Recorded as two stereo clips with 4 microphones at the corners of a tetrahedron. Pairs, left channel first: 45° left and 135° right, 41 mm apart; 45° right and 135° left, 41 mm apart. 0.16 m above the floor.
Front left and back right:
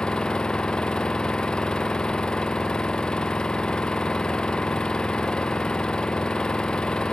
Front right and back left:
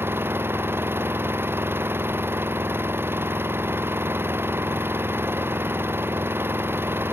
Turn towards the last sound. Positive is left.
turn(degrees=115)